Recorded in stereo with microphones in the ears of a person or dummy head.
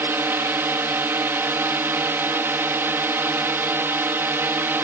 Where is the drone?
15° right (ahead or behind).